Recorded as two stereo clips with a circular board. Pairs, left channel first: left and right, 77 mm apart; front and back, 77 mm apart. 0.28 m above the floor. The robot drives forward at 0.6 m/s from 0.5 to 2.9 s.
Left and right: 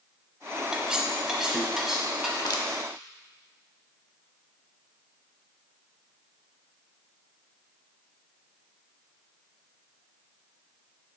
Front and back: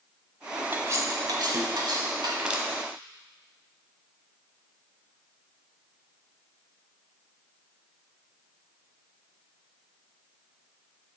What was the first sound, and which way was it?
Cutlery clinking, 165° right.